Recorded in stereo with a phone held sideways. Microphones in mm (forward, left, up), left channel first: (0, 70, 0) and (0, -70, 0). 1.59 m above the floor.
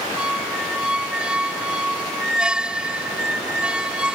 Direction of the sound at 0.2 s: 5° right (ahead or behind).